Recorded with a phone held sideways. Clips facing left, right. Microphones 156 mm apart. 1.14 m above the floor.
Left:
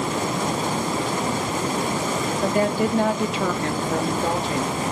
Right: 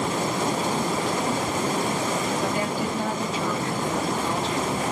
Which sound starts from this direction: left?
A woman speaking, at 2.4 s.